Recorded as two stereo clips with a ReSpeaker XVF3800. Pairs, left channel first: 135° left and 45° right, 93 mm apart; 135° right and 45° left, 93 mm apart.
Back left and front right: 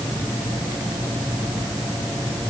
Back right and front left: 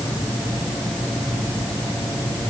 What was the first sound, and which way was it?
Only background noise.